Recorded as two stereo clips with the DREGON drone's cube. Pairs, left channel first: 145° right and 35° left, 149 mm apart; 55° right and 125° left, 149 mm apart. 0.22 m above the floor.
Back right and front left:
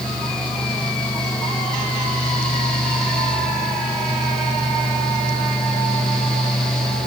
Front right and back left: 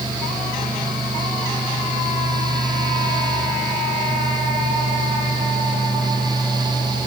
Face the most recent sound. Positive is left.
No sound to turn to.